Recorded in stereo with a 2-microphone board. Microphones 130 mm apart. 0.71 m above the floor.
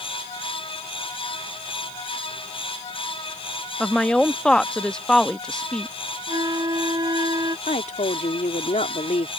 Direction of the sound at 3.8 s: 5° left (ahead or behind).